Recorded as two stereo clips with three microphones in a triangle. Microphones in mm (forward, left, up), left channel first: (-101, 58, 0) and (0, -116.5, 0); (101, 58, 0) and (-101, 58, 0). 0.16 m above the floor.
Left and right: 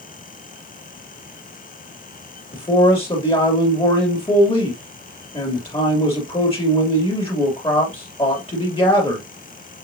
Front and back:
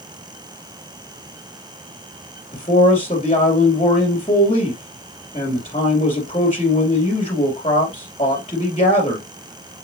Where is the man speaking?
60° left, 3.5 m.